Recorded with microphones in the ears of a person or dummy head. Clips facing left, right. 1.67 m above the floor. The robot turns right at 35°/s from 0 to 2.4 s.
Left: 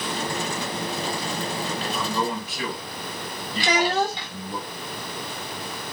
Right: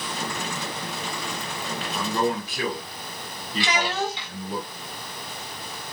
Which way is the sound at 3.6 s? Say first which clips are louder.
Left 4 dB; 35° left (ahead or behind).